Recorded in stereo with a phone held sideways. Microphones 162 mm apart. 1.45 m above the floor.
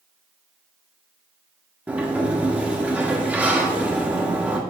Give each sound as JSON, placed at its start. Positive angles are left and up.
{"t": 1.9, "sound": "a sliding door", "side_deg": -10, "distance_m": 1.1}